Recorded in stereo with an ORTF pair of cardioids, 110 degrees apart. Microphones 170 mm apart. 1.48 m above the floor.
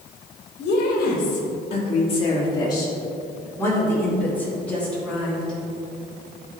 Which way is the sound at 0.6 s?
65° left.